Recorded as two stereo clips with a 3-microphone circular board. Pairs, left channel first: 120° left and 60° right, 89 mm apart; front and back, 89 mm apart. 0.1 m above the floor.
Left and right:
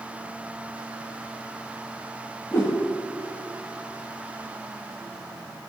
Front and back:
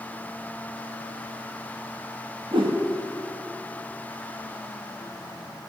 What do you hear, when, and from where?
2.5 s a whoosh: straight behind, 1.9 m